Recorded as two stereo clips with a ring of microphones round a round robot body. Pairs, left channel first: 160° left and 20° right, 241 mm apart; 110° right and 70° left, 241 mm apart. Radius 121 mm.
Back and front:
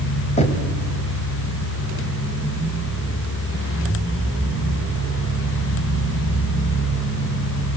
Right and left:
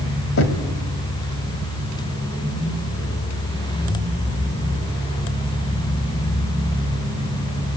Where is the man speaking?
I don't hear a man speaking.